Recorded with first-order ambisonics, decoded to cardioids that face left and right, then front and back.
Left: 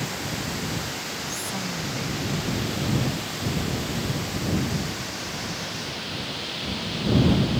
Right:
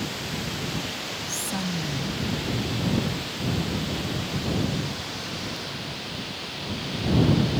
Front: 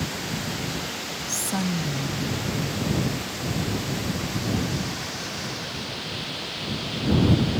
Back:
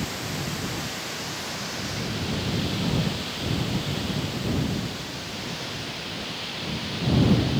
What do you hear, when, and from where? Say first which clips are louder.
1.3 s a woman speaking: even, front 3 dB; 15° right